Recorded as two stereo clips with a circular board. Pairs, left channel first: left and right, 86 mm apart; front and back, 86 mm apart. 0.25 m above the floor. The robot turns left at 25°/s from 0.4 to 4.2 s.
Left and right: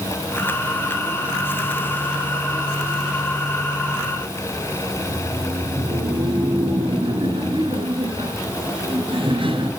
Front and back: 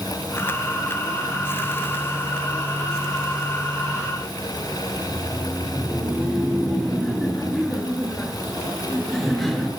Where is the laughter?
85° right, 4.5 m.